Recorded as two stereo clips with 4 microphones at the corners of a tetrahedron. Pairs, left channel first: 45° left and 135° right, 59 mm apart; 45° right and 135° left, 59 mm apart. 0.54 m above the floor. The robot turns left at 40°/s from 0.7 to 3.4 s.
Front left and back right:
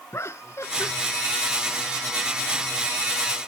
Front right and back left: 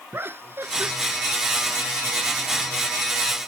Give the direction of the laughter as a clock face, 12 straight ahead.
9 o'clock.